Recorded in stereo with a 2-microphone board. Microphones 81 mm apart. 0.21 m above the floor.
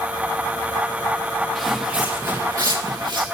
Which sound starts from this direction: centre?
Footsteps, at 1.6 s.